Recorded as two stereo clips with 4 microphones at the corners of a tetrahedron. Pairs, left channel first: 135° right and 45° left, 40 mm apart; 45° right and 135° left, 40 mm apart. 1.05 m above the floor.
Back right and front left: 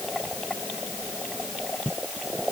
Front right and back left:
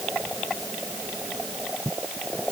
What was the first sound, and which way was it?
Only background noise.